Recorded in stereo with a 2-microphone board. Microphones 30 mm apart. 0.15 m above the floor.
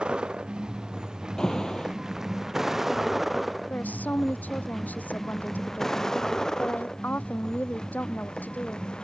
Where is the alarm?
25° left (ahead or behind).